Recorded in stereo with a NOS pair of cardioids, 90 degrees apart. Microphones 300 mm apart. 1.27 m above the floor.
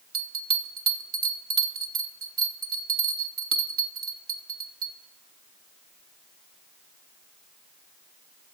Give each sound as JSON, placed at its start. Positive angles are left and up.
{"t": 0.1, "sound": "a bell", "azimuth_deg": -50, "distance_m": 3.0}